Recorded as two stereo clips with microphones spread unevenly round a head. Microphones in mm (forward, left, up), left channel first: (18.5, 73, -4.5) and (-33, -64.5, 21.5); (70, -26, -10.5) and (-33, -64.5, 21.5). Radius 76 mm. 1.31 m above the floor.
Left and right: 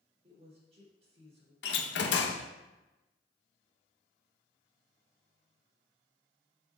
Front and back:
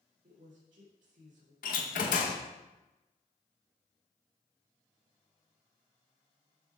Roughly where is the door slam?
Ahead left.